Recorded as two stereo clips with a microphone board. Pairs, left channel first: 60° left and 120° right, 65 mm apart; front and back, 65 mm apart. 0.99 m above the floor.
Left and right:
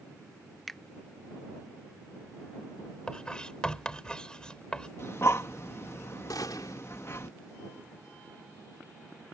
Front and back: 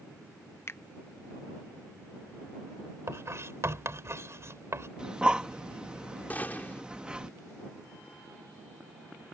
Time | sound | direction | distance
0.7 | a finger snap | 25° right | ?
3.1 | writing | 135° left | ?
5.0 | breathing | 105° left | ?
6.3 | a gunshot | 60° left | ?